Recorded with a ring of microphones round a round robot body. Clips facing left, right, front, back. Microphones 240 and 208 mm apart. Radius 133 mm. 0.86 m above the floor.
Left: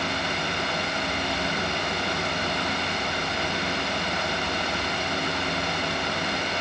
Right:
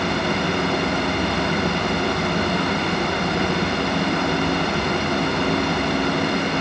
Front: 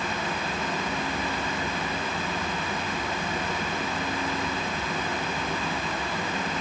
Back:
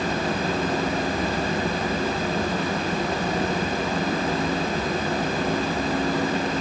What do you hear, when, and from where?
Only background noise.